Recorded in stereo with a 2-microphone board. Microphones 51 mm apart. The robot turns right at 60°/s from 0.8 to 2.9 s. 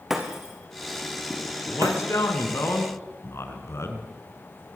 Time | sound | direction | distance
0.1 | breaking glass | 5° right (ahead or behind) | 4 m
1.7 | a man speaking | 45° left | 4.5 m